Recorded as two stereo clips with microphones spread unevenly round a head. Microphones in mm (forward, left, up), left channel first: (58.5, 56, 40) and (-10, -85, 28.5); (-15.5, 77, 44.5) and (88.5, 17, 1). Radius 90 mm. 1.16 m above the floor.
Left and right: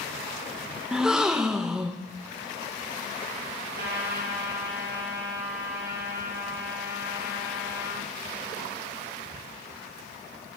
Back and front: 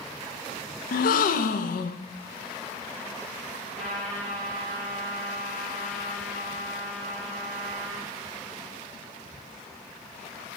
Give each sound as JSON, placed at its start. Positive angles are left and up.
{"t": 0.9, "sound": "a gasp", "azimuth_deg": 160, "distance_m": 0.7}
{"t": 3.8, "sound": "a trumpet", "azimuth_deg": -130, "distance_m": 6.5}